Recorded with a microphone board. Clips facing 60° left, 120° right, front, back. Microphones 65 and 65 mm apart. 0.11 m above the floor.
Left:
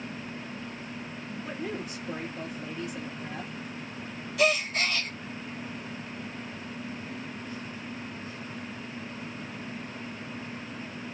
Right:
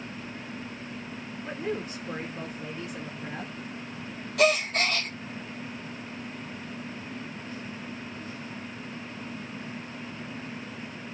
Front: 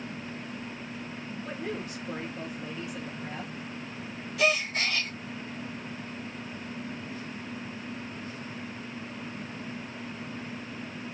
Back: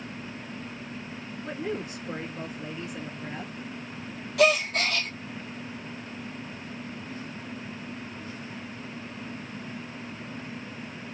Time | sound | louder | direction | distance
1.4 | a woman speaking | right 4 dB, back 4 dB | 120° right | 1.6 m
4.4 | a gasp | right 2 dB, back 5 dB | 155° right | 1.1 m